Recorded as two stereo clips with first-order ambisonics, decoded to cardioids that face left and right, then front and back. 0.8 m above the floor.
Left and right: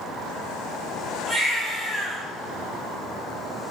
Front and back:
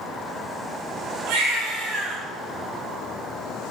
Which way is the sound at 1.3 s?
165° right.